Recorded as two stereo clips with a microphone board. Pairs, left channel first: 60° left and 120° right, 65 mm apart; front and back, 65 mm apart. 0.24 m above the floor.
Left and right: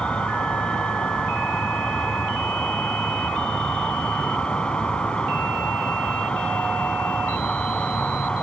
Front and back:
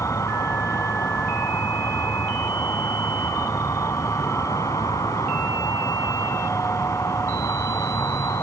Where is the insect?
10° right.